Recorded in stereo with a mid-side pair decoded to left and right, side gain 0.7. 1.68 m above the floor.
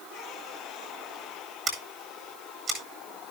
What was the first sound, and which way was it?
Scissors, 30° right.